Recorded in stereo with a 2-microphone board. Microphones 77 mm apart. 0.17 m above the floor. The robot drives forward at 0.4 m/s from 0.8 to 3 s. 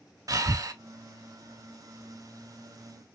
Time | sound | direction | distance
0.3 | breathing | 50° right (ahead or behind) | 0.6 m